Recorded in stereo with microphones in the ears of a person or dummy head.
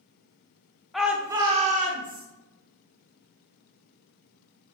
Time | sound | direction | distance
0.9 | a shout | centre (ahead or behind) | 0.7 m